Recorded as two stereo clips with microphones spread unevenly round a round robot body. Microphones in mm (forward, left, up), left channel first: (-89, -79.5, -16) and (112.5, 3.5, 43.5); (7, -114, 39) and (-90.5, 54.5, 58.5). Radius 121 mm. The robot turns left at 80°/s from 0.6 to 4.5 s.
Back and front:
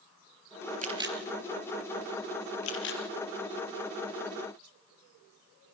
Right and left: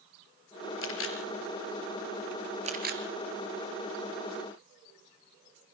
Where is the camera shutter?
35° right, 4 m; by 3.0 s 150° left, 4 m.